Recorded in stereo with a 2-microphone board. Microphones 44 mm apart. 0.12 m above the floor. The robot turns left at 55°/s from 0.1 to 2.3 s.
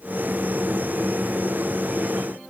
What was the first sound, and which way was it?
Only background noise.